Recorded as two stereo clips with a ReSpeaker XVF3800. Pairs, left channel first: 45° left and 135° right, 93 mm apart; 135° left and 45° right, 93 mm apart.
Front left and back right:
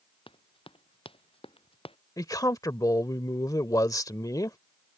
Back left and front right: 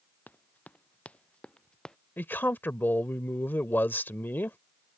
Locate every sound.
0.3 s running footsteps: 65° left; by 2.0 s 55° left
2.2 s a man speaking: 75° left